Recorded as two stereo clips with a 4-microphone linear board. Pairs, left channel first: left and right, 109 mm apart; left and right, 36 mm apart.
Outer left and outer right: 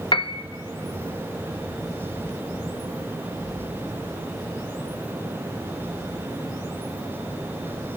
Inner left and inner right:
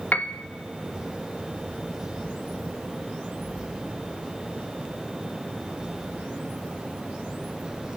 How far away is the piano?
About 0.7 m.